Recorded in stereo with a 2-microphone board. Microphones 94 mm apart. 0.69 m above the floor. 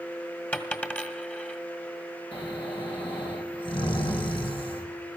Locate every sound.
0.5 s a dropped coin: 15° left (ahead or behind), 1.5 m
2.3 s snoring: 75° left (ahead or behind), 3 m